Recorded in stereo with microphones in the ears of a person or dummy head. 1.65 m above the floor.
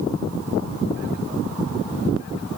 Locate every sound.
Only background noise.